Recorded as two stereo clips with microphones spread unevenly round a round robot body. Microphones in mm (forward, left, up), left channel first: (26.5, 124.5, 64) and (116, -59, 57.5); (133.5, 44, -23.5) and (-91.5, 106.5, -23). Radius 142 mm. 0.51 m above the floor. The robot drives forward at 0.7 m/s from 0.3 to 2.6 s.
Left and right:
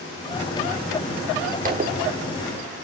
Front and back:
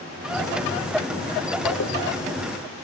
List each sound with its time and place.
1.6 s a zipper: 30° right, 1.7 m